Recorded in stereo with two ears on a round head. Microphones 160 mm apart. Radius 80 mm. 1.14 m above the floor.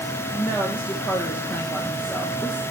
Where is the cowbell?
I don't hear a cowbell.